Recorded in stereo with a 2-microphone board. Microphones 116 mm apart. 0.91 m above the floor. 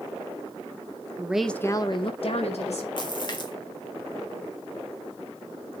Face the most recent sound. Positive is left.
turn(degrees=40)  # may be behind; listen again after turning